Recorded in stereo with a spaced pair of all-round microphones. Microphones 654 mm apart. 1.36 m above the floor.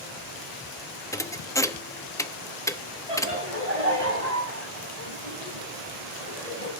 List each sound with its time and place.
1.1 s a thud: 5° left (ahead or behind), 0.9 m
3.1 s laughter: 70° right (ahead or behind), 8 m